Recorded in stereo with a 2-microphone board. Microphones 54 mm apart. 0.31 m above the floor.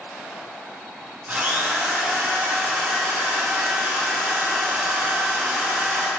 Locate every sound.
1.3 s a drill: 40° right (ahead or behind), 3.5 m